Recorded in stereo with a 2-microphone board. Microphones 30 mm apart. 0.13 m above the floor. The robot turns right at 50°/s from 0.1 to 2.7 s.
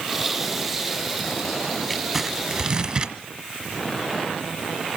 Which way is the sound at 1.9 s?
175° right.